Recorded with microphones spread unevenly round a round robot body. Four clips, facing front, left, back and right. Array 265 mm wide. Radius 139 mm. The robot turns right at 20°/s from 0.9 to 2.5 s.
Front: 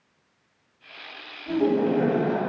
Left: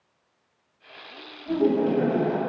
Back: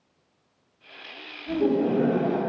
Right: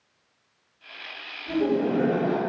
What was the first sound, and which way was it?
Laughter, 15° left.